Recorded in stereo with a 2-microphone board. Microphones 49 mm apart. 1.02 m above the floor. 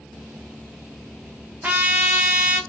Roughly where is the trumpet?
Right.